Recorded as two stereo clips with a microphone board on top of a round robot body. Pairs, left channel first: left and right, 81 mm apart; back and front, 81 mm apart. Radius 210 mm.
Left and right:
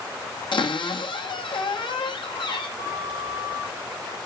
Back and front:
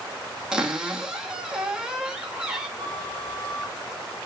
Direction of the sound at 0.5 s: 80° left.